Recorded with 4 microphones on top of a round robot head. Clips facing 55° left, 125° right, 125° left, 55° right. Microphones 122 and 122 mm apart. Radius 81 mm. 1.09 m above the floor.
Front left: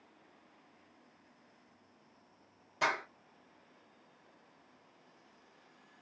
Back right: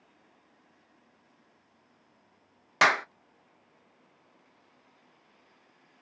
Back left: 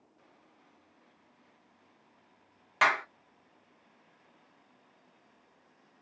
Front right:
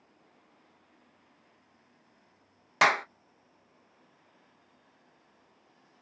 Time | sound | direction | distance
2.8 | a clap | 110° right | 0.6 m